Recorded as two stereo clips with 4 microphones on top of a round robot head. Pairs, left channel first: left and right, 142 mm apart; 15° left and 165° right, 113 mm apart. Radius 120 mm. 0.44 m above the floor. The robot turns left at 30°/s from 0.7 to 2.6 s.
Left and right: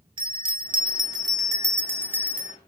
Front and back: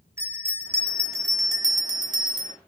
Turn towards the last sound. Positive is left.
turn(degrees=-170)